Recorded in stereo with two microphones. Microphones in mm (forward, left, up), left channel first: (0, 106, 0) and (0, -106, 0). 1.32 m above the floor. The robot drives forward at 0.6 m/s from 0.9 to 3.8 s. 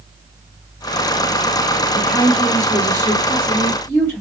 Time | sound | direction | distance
1.9 | a woman speaking | 15° left (ahead or behind) | 2.5 m